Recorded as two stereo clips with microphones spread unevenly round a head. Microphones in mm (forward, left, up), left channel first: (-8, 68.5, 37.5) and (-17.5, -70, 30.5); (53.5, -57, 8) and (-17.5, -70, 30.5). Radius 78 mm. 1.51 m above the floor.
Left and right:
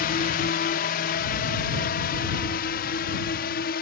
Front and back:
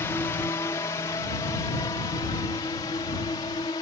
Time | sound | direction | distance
0.0 | a drone | 70° left | ?